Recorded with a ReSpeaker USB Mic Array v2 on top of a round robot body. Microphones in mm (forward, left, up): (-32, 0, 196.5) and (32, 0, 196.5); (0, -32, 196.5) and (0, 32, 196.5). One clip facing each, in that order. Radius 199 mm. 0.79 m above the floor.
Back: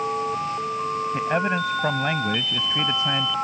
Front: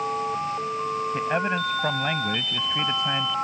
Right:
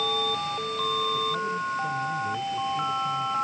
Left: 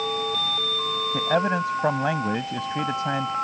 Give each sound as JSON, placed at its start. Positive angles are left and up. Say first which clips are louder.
{"t": 1.1, "sound": "a man speaking", "louder": "back 3 dB, left 5 dB", "azimuth_deg": 90}